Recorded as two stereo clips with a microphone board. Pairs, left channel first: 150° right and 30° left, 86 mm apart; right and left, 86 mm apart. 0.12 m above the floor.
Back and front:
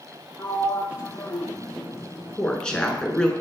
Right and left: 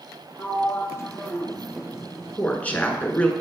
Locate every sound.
0.4 s a sliding door: 125° right, 1.2 m
2.4 s a woman speaking: 95° right, 1.0 m